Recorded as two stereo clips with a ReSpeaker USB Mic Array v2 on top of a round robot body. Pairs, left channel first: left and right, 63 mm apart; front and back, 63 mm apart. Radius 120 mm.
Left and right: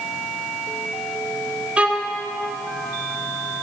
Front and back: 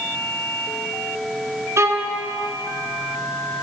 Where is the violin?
155° right, 1.6 m.